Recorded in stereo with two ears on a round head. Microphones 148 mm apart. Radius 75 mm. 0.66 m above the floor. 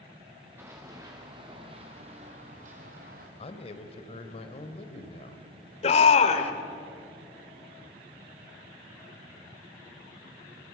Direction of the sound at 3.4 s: 35° left (ahead or behind).